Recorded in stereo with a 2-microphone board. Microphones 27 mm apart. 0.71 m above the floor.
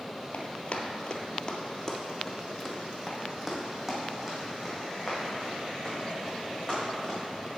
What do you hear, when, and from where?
0.3 s running footsteps: 50° left (ahead or behind), 1.0 m; by 7.2 s 25° right (ahead or behind), 4 m